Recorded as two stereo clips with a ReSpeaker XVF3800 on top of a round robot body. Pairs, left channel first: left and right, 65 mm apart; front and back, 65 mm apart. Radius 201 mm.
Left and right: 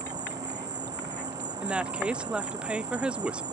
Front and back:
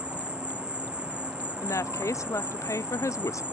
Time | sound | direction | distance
0.0 | an insect | 105° right | ?
1.6 | a woman speaking | 20° right | ?